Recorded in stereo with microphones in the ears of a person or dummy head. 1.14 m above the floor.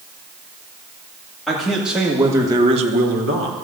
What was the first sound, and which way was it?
A man speaking, centre (ahead or behind).